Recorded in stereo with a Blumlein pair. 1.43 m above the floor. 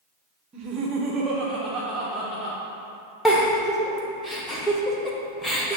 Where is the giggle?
10° left, 1.1 m.